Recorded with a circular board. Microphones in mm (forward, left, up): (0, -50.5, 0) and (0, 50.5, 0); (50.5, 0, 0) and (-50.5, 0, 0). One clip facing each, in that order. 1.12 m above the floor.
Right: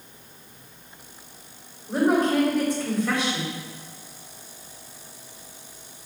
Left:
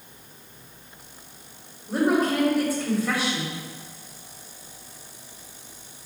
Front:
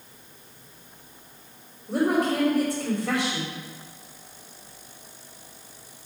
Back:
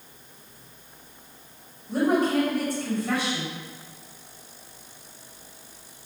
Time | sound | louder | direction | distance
1.9 | a woman speaking | right 1 dB, back 1 dB | 5° left | 3 m